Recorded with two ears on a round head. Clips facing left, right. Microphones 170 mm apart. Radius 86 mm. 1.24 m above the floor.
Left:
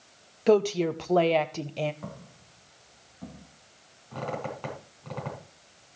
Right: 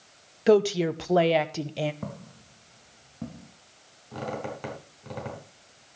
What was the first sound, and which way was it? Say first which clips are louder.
A woman speaking: right 2 dB; 5° right (ahead or behind).